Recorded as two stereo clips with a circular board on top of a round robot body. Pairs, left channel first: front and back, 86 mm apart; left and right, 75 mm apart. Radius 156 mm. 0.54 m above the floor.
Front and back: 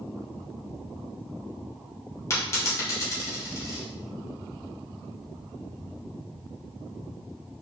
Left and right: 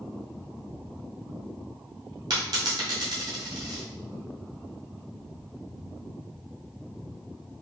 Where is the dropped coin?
60° right, 0.9 m.